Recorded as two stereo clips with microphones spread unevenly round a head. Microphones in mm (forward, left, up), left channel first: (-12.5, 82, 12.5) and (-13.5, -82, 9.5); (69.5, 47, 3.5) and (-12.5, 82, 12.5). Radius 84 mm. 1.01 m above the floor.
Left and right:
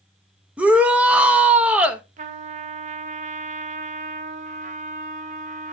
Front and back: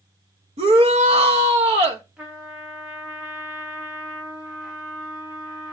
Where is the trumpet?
120° right, 0.8 m.